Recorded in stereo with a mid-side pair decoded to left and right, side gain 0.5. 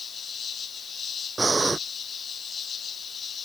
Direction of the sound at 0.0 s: 45° left.